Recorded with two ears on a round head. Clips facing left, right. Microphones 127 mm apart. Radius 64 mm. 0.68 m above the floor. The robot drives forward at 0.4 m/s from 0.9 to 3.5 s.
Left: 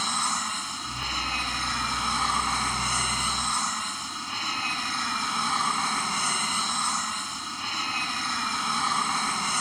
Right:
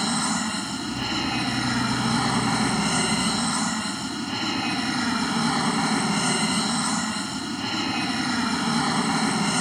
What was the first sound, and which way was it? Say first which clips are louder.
An aircraft: right 5 dB; 70° right (ahead or behind).